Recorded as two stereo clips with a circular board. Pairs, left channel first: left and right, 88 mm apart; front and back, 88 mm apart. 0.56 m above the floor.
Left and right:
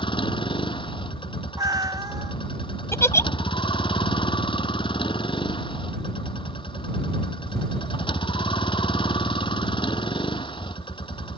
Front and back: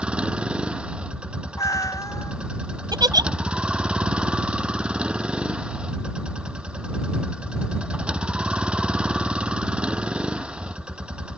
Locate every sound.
0.0 s a vehicle: 100° left
1.6 s a cat meowing: 50° right
2.9 s a giggle: 145° left